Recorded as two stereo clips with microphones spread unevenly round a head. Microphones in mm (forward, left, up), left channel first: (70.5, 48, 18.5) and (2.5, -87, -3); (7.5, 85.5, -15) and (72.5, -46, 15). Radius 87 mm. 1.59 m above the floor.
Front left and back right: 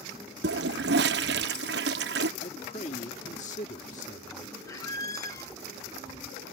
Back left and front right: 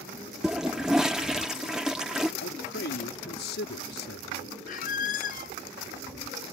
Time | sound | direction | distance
0.4 | a toilet flushing | 150° right | ?
2.4 | a man speaking | 115° left | ?
4.7 | a squeak | 115° left | ?